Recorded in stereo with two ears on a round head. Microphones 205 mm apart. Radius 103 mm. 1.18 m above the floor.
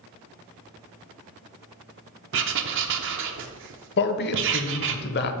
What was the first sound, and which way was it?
Writing, 55° right (ahead or behind).